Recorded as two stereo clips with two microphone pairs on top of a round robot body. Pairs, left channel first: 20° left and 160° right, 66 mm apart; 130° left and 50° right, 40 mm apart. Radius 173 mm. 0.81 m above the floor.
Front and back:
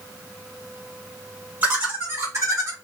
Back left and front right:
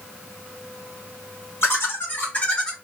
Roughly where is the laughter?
Behind left.